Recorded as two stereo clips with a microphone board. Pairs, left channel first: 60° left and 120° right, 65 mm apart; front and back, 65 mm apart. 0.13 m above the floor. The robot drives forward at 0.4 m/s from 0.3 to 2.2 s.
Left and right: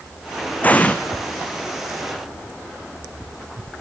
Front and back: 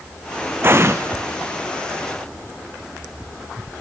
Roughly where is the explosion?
Behind left.